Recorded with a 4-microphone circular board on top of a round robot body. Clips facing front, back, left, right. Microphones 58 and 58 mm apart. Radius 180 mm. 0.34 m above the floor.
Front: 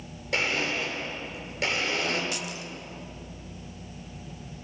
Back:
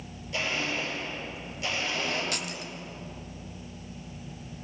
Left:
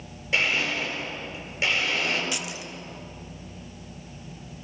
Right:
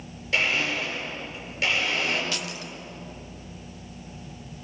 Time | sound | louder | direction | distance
0.3 | a blender | front 3 dB, even | 15° left | 9.5 m
2.3 | keys jangling | even, even | 165° left | 1.5 m